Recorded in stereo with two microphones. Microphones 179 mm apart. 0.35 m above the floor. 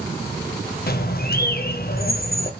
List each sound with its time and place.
0.9 s a bird: 60° left (ahead or behind), 0.5 m